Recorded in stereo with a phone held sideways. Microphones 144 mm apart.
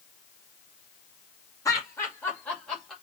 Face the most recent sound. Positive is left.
turn(degrees=0)  # may be behind; listen again after turning